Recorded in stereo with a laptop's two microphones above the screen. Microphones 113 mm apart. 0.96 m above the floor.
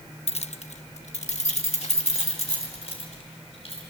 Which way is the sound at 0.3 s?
65° left (ahead or behind).